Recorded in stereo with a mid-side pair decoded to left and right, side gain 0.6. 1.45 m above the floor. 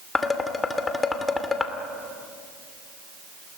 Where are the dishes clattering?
25° left, 2.5 m.